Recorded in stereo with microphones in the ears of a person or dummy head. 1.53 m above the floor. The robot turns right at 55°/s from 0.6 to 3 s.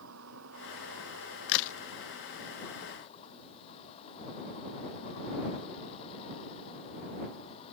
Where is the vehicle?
105° right; by 7.7 s 30° left.